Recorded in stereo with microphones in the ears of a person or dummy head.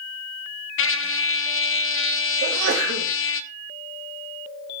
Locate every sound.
0.8 s a trumpet: 65° left (ahead or behind), 0.6 m
2.4 s a sneeze: 75° right (ahead or behind), 2.5 m